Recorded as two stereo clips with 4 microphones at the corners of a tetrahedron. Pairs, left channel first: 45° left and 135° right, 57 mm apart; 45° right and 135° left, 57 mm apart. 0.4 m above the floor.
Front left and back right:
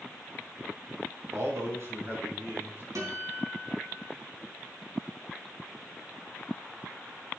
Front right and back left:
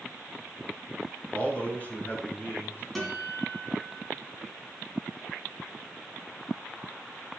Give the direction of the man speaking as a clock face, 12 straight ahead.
4 o'clock.